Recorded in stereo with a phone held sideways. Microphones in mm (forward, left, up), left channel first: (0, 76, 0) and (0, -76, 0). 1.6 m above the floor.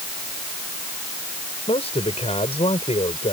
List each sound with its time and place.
1.7 s a man speaking: 45° left (ahead or behind)